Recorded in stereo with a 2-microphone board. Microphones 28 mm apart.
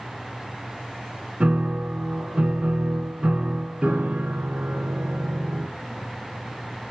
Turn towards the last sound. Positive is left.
turn(degrees=-50)  # may be behind; listen again after turning